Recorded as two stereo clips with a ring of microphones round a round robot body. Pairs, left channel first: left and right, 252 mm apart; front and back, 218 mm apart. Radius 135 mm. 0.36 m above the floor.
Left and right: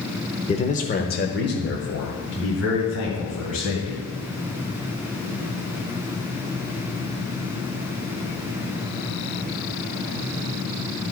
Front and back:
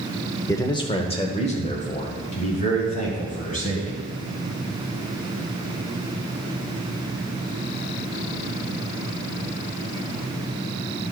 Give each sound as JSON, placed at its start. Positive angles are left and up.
{"t": 0.5, "sound": "a man speaking", "azimuth_deg": 60, "distance_m": 0.9}